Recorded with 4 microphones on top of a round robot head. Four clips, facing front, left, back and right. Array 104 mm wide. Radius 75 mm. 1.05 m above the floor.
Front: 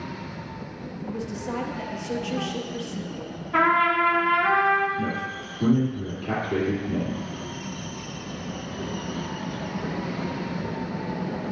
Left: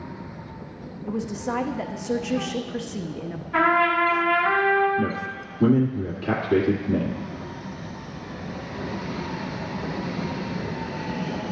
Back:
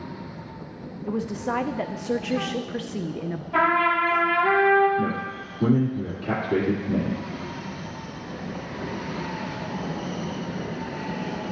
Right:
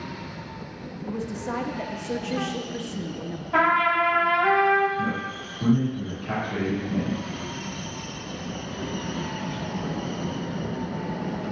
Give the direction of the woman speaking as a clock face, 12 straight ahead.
6 o'clock.